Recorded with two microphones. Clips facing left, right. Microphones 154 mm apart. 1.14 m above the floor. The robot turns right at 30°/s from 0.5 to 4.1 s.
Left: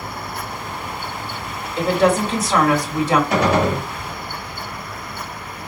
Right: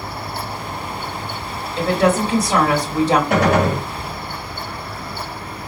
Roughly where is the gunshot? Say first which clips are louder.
Right 1 dB; right.